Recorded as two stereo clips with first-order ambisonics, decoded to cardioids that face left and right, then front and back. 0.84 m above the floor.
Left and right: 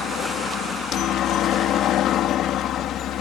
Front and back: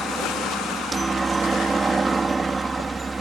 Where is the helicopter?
105° left.